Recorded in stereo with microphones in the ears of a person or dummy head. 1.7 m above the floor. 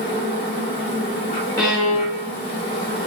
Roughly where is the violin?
Left.